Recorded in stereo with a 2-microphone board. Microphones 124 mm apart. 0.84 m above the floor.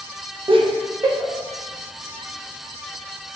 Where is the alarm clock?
I don't hear an alarm clock.